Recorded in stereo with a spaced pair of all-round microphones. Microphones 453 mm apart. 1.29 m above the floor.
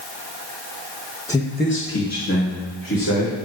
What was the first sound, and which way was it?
A man speaking, 5° left (ahead or behind).